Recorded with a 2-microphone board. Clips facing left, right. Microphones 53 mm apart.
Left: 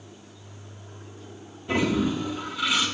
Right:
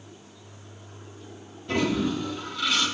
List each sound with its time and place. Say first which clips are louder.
1.7 s a toilet flushing: left 1 dB; 20° left (ahead or behind), 2 m